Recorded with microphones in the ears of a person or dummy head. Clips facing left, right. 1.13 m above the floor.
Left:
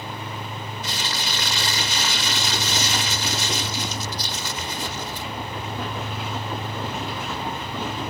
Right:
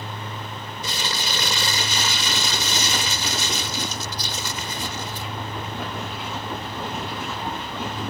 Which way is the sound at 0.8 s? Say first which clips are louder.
Right 3 dB; 65° right (ahead or behind).